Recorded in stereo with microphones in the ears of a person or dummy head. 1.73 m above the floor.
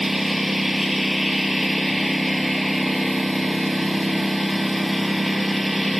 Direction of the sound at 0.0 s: Centre (ahead or behind).